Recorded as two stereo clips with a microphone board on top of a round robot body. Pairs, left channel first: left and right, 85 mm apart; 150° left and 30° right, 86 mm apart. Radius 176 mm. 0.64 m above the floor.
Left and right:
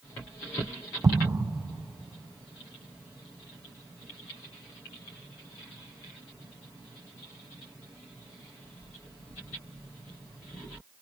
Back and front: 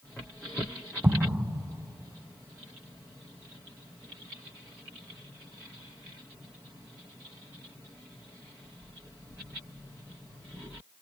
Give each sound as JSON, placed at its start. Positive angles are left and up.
{"t": 1.0, "sound": "an explosion", "azimuth_deg": -80, "distance_m": 0.6}